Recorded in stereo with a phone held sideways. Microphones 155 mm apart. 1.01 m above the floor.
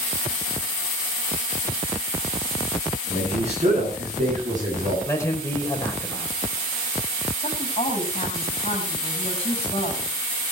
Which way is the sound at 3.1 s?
45° right (ahead or behind).